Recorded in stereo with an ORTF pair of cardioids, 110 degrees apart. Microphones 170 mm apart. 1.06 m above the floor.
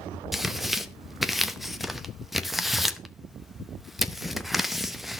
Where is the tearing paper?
Straight ahead, 0.8 m.